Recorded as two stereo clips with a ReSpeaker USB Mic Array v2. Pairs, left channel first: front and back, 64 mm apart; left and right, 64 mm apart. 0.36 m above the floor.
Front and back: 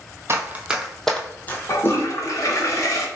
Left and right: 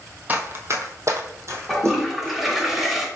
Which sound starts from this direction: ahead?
A toilet flushing, at 1.7 s.